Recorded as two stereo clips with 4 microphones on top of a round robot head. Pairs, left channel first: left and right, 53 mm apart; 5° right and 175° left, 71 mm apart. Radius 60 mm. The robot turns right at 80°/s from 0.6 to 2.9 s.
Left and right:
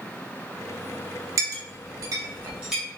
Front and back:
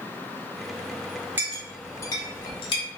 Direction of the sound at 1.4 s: 115° right.